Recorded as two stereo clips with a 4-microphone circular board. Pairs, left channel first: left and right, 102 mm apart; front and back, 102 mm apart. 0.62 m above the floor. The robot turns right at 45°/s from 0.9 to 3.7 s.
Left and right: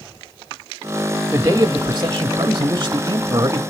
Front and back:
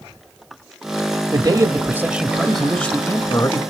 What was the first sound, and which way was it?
A man speaking, 150° right.